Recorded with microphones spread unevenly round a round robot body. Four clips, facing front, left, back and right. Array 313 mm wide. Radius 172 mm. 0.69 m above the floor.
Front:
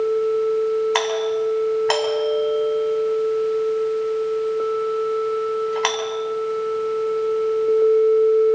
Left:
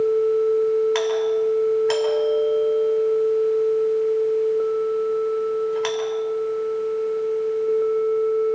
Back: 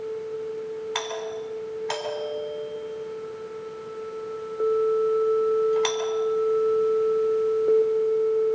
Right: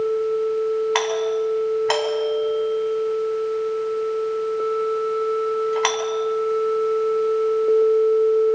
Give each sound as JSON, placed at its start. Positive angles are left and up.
{"t": 0.9, "sound": "a doorbell", "azimuth_deg": -40, "distance_m": 6.5}